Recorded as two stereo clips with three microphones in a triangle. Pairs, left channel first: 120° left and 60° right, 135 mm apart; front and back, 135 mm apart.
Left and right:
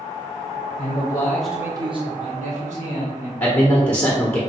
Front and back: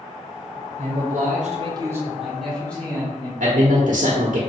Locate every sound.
0.8 s a man speaking: 160° left, 0.8 m; by 3.3 s 75° right, 1.6 m
3.4 s a man speaking: 165° right, 0.5 m